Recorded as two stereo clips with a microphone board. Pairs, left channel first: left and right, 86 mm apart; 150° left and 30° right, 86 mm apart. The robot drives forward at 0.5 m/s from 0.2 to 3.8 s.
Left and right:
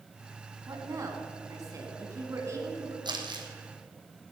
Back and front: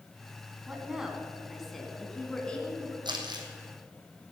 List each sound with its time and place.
0.7 s a woman speaking: 105° right, 2 m; by 3.0 s 140° right, 2.5 m
3.0 s crumpling: 60° right, 2 m; by 3.5 s 65° right, 2.0 m